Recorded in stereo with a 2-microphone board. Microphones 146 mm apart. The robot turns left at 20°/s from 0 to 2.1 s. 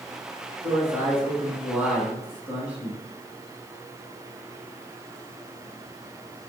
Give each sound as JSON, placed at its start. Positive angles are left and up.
{"t": 0.6, "sound": "a man speaking", "side_deg": -25, "distance_m": 1.5}